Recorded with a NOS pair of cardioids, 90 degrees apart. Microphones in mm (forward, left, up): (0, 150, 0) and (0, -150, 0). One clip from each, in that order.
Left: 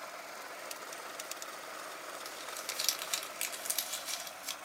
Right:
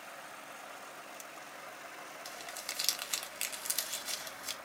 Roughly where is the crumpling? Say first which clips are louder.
Right 1 dB; ahead.